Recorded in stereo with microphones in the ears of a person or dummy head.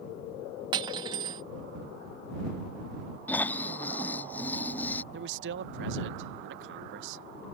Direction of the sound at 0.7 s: 30° right (ahead or behind).